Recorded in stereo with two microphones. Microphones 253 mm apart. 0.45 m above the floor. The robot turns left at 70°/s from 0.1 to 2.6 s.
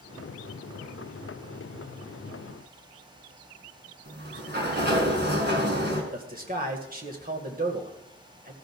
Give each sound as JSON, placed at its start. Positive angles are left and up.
{"t": 4.0, "sound": "a sliding door", "side_deg": -45, "distance_m": 2.0}
{"t": 6.1, "sound": "a man speaking", "side_deg": -35, "distance_m": 1.9}